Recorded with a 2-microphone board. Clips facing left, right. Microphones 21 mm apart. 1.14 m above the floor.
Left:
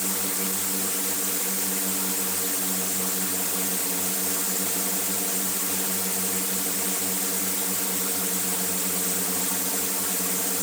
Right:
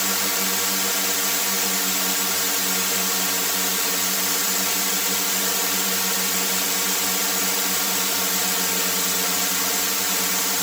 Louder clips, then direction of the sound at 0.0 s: Right 6 dB; 65° right (ahead or behind).